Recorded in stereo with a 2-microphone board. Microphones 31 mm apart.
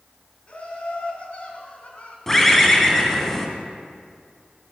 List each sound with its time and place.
0.5 s laughter: 40° left (ahead or behind), 2 m
2.3 s a bird: 10° left (ahead or behind), 1.3 m